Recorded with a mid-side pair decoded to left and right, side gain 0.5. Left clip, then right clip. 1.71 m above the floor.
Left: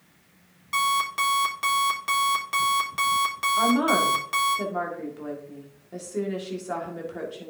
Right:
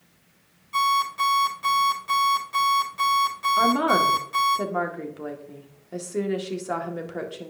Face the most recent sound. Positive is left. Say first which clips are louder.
# right 2 dB
turn(degrees=-30)